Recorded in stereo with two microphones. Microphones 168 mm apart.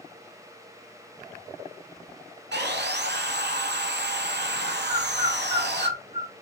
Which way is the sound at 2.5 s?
85° right.